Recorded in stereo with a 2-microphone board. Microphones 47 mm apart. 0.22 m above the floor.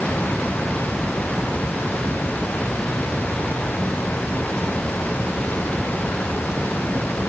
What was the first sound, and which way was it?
Only background noise.